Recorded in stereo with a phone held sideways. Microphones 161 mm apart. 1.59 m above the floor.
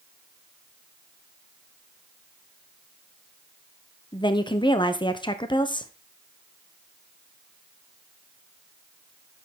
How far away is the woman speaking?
About 0.9 m.